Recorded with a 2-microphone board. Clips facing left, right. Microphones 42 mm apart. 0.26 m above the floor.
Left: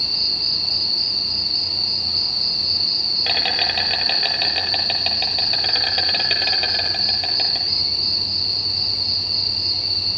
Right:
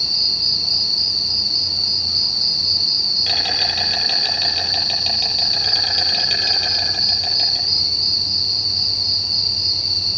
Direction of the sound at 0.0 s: 25° left (ahead or behind).